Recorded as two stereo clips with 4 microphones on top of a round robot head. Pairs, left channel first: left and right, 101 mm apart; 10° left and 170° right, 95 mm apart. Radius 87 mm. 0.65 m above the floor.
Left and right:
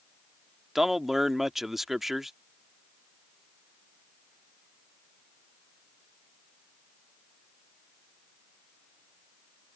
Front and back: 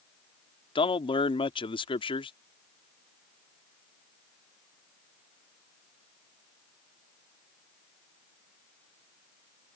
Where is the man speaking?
5° right.